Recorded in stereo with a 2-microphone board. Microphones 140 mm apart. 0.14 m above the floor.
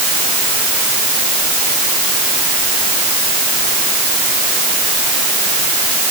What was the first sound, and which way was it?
Only background noise.